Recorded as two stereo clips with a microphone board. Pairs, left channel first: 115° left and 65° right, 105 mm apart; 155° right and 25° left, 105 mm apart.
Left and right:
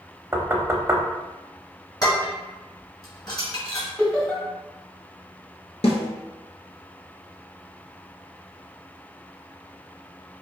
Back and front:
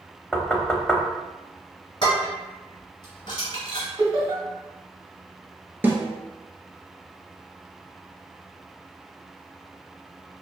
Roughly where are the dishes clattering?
Behind.